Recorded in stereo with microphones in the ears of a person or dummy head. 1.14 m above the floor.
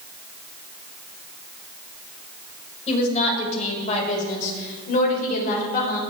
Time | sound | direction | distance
2.9 | a woman speaking | 35° left (ahead or behind) | 5.5 m